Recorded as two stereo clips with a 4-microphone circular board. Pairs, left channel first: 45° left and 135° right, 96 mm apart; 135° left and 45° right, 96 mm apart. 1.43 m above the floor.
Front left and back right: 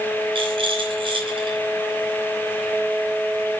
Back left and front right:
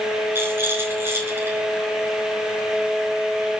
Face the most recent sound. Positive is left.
turn(degrees=-110)